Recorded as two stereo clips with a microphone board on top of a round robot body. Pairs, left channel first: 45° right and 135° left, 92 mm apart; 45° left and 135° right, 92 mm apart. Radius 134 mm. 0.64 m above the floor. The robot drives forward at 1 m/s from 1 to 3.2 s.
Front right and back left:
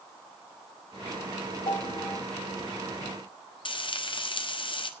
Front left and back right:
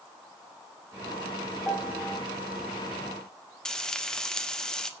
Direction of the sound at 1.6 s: 40° right.